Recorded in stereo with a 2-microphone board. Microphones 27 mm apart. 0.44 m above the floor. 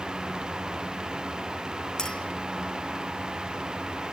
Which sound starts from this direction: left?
A clink, at 2.0 s.